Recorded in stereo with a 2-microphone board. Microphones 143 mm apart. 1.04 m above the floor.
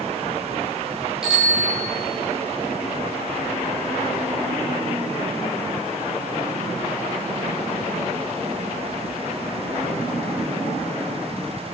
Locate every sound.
1.2 s a bicycle bell: 5° right (ahead or behind), 9.5 m